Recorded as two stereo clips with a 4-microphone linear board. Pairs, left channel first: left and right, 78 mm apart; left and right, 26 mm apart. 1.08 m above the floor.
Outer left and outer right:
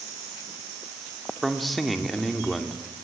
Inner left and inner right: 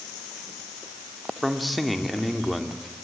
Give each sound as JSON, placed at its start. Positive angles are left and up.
{"t": 1.4, "sound": "a man speaking", "side_deg": 0, "distance_m": 2.5}